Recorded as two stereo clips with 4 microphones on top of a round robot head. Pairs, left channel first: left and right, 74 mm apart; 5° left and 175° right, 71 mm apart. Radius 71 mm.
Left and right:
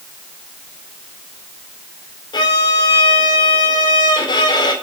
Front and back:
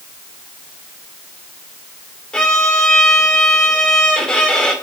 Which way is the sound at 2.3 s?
80° left.